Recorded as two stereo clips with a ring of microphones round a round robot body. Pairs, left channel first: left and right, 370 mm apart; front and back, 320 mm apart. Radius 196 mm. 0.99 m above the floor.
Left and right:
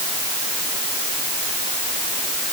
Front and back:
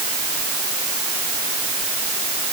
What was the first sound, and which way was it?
Only background noise.